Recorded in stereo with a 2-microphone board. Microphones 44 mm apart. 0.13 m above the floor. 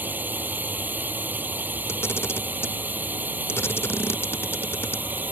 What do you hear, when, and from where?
0.0 s a drone: 45° right (ahead or behind)
1.9 s a camera shutter: 60° left (ahead or behind)